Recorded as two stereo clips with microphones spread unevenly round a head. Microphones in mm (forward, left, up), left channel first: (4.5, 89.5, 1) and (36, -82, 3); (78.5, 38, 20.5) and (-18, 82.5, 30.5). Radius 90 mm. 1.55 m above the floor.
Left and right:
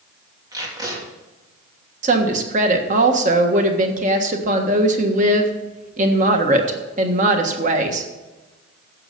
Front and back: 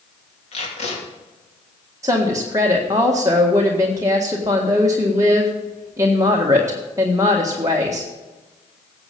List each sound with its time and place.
0.5 s tape being pulled: 10° right, 3 m
2.0 s a woman speaking: 130° right, 1.5 m